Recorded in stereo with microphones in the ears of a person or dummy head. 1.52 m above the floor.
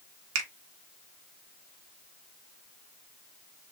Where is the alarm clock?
I don't hear an alarm clock.